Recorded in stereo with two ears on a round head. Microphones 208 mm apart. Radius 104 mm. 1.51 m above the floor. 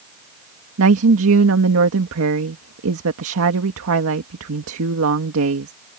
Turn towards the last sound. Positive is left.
turn(degrees=-65)  # may be behind; listen again after turning